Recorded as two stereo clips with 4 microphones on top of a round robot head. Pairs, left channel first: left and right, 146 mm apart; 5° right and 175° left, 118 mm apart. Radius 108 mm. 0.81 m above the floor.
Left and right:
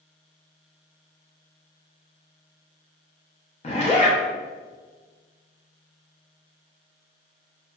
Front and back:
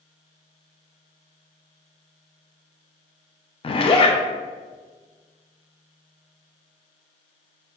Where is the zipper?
40° left, 0.5 m.